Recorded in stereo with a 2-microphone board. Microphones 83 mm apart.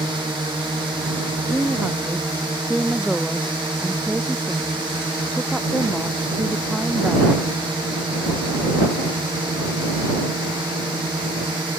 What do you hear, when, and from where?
0.0 s a drone: 70° right (ahead or behind)
1.5 s a woman speaking: 10° right (ahead or behind)